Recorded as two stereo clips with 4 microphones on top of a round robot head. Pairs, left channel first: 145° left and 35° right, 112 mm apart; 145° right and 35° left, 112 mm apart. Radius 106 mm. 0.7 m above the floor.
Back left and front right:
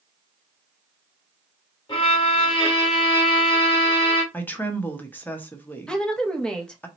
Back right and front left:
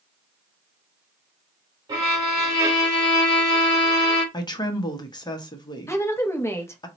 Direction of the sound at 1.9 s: 95° left.